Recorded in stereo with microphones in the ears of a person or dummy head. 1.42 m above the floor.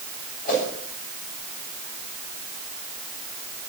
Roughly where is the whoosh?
Left.